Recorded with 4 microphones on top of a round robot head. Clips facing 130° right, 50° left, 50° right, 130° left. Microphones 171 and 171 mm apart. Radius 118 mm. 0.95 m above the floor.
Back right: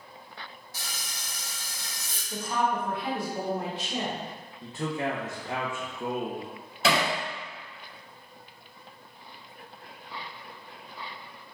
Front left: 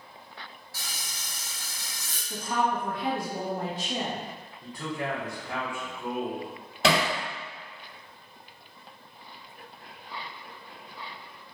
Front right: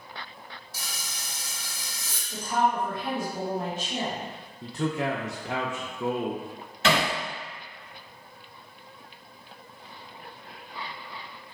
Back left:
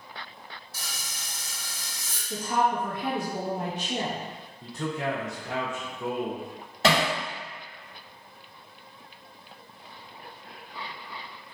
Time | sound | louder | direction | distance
0.7 | frying | back right 1 dB, front right 2 dB | 60° right | 0.8 m
2.3 | a woman speaking | even, even | 100° left | 1.4 m
4.6 | a man speaking | back right 3 dB, front right 3 dB | 65° right | 0.5 m
6.8 | hammering | front left 1 dB, back left 1 dB | 80° left | 1.4 m